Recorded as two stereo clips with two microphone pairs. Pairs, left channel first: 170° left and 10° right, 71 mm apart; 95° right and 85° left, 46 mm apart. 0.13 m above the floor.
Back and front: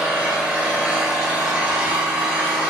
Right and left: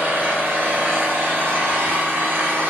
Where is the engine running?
55° left, 1.9 m.